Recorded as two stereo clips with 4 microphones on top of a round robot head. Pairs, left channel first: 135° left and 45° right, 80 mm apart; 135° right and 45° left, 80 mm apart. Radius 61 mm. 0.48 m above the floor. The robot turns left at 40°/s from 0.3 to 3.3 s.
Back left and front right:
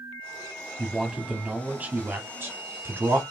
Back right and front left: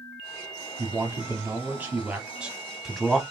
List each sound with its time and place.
0.8 s a man speaking: 45° left, 1.2 m; by 3.2 s 55° right, 1.2 m